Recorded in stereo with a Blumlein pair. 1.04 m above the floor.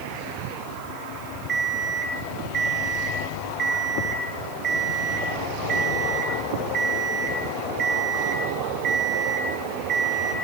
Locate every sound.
1.5 s an alarm clock: 25° right, 8.5 m